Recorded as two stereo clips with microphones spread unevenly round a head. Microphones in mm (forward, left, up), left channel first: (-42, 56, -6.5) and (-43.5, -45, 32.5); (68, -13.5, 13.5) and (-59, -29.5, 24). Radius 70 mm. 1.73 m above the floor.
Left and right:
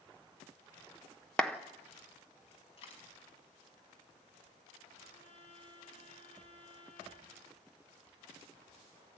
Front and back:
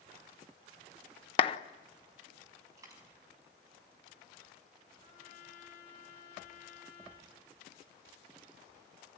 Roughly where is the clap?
Ahead.